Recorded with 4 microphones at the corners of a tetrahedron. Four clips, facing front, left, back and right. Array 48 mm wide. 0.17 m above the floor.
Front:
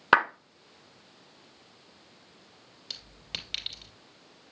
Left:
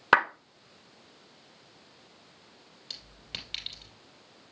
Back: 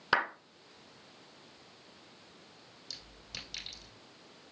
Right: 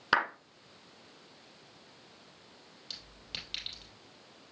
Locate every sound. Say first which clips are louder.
0.1 s a clap: left 6 dB, front 8 dB; 30° left, 1.3 m
2.9 s a clink: left 2 dB, front 7 dB; 10° left, 2.5 m